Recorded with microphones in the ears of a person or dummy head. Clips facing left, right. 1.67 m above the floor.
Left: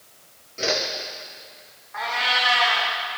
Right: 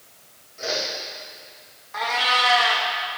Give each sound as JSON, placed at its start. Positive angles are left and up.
{"t": 0.6, "sound": "a whoosh", "side_deg": 50, "distance_m": 1.3}
{"t": 1.9, "sound": "a cat meowing", "side_deg": -45, "distance_m": 1.2}